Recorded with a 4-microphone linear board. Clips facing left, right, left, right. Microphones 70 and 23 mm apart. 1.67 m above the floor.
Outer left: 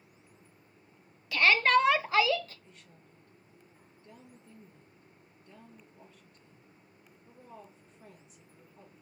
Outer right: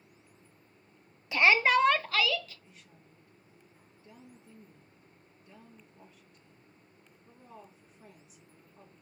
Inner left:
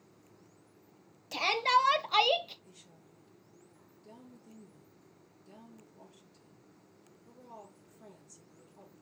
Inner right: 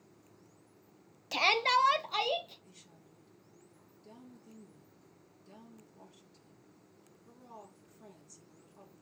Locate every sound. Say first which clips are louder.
1.3 s a shout: even, even; 20° right (ahead or behind), 0.8 m; by 2.5 s 40° left (ahead or behind), 0.6 m
2.6 s a woman speaking: outer left 1 dB, inner left 1 dB; 5° right (ahead or behind), 2.5 m